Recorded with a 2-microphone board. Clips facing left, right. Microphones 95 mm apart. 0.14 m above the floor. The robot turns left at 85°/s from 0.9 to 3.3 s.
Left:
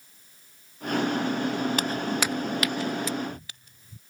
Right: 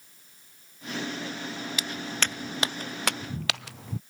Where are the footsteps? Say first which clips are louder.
Left 6 dB; 50° left (ahead or behind); by 4.0 s 85° right.